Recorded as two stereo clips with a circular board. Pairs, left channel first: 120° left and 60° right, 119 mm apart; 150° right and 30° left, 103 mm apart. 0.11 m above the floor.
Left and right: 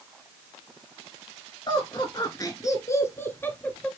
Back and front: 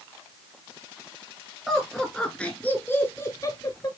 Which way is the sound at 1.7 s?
120° left.